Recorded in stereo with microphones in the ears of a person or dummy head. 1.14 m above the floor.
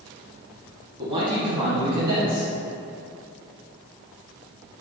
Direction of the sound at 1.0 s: 30° right (ahead or behind).